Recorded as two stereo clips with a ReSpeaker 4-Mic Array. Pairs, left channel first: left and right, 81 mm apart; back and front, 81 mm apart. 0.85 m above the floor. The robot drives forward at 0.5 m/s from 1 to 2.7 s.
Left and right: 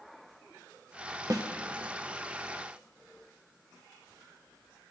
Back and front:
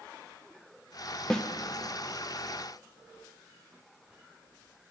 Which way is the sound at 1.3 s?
100° right.